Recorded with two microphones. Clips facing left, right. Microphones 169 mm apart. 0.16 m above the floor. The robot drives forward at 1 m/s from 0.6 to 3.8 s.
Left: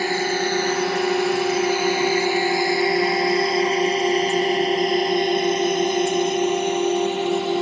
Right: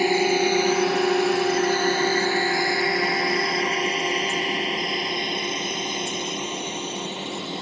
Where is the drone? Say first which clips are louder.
Right 3 dB; 15° right (ahead or behind); by 7.6 s 70° left (ahead or behind).